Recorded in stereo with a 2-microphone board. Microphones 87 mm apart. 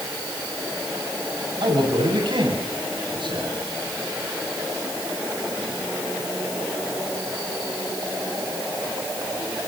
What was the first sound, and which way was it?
A man speaking, 70° right (ahead or behind).